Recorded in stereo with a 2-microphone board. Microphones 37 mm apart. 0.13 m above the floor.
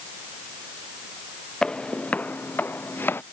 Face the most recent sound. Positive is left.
turn(degrees=70)  # may be behind; listen again after turning